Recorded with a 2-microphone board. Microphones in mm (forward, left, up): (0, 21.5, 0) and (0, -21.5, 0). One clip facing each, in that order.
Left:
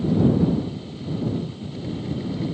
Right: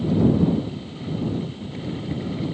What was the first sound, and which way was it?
Only background noise.